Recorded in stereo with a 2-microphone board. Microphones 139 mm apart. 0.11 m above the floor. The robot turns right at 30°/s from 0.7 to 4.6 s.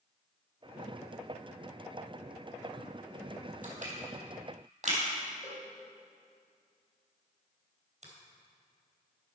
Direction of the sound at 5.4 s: 50° left (ahead or behind).